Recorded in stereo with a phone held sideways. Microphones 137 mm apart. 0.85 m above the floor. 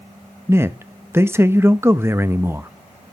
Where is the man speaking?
20° right (ahead or behind), 0.5 m.